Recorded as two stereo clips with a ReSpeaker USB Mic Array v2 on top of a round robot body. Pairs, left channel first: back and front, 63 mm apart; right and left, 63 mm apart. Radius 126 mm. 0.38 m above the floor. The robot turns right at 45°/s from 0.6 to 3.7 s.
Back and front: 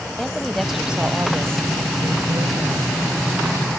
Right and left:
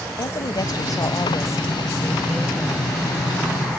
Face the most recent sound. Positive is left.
turn(degrees=50)